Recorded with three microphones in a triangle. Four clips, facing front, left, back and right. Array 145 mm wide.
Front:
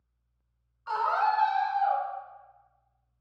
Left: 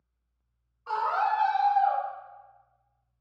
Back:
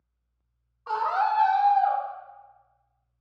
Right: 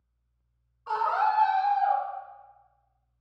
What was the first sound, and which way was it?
A scream, 175° right.